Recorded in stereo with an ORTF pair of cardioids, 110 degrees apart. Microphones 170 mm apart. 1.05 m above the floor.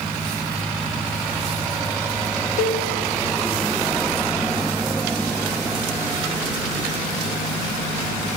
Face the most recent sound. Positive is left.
turn(degrees=60)